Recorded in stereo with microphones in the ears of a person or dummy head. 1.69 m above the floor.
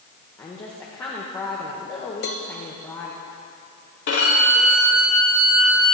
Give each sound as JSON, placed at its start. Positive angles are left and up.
{"t": 0.4, "sound": "a woman speaking", "side_deg": 10, "distance_m": 0.6}
{"t": 2.2, "sound": "a cowbell", "side_deg": 45, "distance_m": 0.5}
{"t": 4.1, "sound": "a violin", "side_deg": 70, "distance_m": 3.0}